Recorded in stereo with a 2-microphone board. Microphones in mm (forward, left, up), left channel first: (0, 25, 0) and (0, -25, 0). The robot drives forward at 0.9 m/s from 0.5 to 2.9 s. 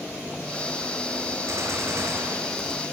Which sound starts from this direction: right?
A gunshot, at 1.5 s.